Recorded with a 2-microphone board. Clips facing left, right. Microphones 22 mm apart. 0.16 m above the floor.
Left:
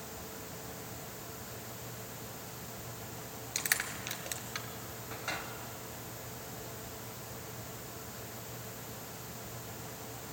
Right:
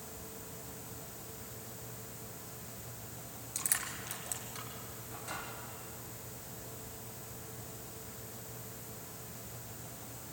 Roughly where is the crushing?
Left.